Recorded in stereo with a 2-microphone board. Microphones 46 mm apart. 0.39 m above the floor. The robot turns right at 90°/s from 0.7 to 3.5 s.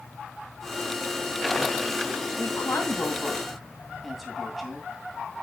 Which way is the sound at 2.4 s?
70° left (ahead or behind).